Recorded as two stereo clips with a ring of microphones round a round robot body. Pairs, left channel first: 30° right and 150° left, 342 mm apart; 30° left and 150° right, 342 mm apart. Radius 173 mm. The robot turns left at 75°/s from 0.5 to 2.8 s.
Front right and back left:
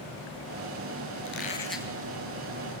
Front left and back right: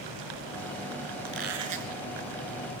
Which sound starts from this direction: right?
A squeak, at 1.2 s.